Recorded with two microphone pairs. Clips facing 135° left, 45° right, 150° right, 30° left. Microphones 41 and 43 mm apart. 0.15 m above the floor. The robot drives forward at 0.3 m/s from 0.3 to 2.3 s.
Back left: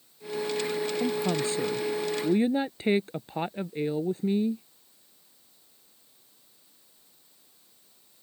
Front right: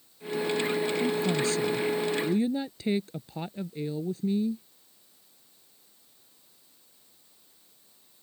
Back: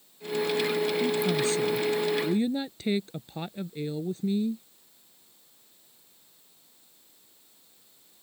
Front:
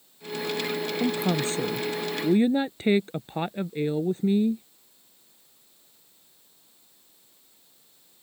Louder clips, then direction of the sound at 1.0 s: Front right 1 dB, even; 75° left.